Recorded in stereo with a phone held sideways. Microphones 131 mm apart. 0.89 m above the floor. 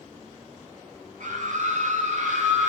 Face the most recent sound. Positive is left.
turn(degrees=-70)  # may be behind; listen again after turning